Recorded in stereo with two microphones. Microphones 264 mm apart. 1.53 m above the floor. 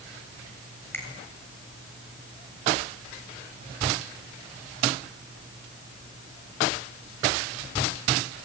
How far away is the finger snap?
About 6.5 m.